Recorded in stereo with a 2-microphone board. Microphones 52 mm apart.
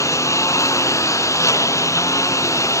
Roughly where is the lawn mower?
Left.